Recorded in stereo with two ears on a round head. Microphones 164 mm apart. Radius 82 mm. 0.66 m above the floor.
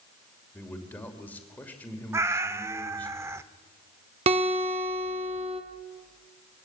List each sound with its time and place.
0.5 s a man speaking: 10° left (ahead or behind), 2.5 m
2.1 s a cat meowing: 15° right (ahead or behind), 0.7 m
4.3 s a guitar: 35° right (ahead or behind), 1.6 m